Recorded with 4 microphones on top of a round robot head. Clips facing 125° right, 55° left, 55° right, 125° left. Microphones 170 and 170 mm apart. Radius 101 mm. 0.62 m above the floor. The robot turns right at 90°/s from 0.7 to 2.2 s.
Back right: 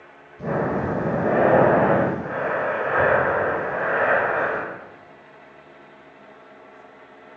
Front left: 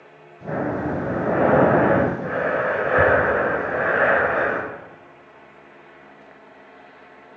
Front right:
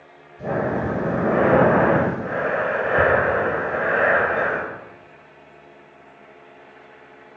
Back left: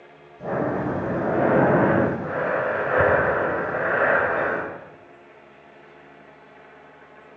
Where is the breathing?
130° right, 3 m; by 4.6 s 5° left, 3 m.